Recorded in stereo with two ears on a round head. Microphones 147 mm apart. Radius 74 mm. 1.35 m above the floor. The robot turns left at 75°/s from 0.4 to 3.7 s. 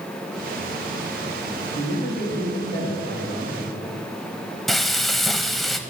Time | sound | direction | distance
1.8 | a man speaking | 100° left | 2.5 m
4.7 | frying | centre (ahead or behind) | 0.7 m